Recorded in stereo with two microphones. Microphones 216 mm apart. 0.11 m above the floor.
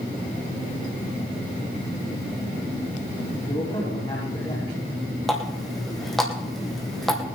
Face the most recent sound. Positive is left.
turn(degrees=0)  # may be behind; listen again after turning